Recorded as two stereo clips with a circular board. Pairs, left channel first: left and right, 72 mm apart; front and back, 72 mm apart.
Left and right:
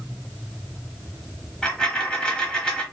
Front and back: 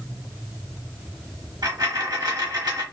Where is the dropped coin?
165° left, 0.9 m.